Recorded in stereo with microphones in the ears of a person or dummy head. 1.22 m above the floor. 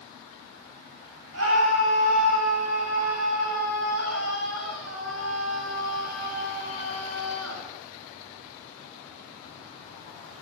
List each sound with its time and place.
1.3 s a scream: 75° right (ahead or behind), 9 m